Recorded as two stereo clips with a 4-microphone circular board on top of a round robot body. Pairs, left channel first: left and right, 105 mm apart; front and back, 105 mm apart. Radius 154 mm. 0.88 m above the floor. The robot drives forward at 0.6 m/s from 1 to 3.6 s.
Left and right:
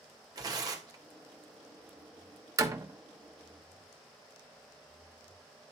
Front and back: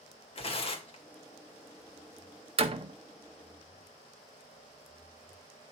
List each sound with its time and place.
0.3 s tearing paper: 35° right, 2 m
2.6 s a door slam: 150° right, 1.5 m; by 2.9 s 155° right, 1.7 m